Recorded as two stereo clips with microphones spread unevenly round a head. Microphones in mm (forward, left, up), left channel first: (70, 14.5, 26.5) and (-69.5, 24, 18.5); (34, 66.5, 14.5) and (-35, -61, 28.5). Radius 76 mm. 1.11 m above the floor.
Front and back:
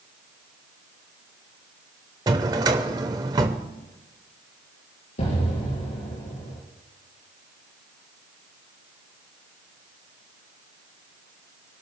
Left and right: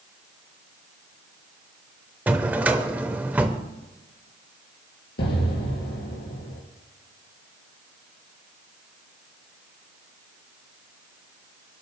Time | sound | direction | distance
2.3 | a drawer | 160° right | 0.8 m
5.2 | an explosion | 35° left | 4 m